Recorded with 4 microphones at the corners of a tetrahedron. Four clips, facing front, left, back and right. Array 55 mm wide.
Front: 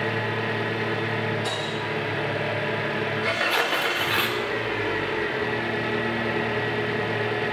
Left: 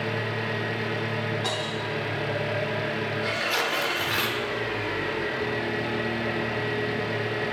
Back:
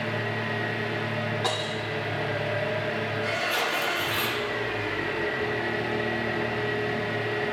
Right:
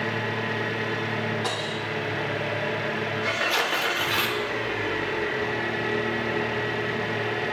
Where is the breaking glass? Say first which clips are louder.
Even, even; 175° left, 2 m.